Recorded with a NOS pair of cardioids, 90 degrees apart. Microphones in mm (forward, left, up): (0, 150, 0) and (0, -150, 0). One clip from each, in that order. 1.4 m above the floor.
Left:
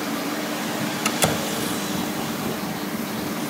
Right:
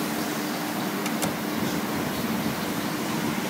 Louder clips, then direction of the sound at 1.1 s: Left 6 dB; 60° left.